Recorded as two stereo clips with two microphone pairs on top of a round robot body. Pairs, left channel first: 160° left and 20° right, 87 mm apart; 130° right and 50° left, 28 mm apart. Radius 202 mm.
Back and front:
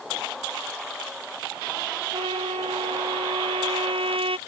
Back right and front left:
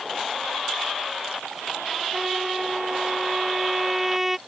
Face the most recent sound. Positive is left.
turn(degrees=-30)